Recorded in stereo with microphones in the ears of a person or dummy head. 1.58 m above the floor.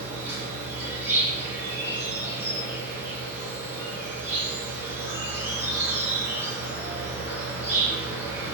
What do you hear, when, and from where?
0.0 s an insect: 5° right (ahead or behind), 1.1 m